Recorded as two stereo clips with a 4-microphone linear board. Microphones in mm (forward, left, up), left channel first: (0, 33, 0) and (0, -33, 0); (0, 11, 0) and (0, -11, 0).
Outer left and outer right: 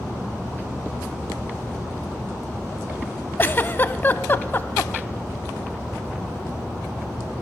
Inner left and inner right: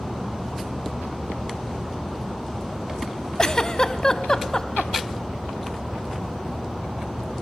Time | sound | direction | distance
3.4 | a giggle | 30° left (ahead or behind) | 0.6 m